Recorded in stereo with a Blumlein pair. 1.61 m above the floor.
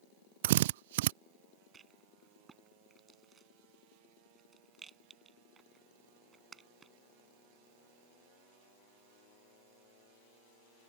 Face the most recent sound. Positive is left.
turn(degrees=-20)